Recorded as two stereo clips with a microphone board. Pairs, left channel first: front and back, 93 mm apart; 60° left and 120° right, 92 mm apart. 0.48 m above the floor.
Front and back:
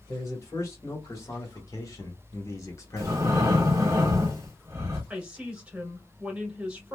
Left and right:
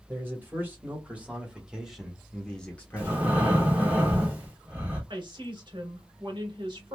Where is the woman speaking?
105° right, 2 m.